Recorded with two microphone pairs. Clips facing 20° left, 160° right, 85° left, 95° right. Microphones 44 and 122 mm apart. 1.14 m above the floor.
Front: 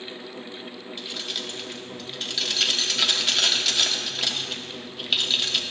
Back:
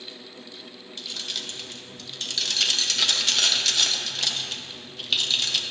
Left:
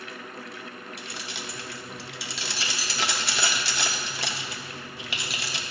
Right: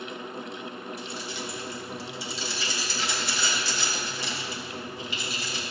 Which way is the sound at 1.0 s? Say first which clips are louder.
Front 1 dB, right 3 dB; 105° left.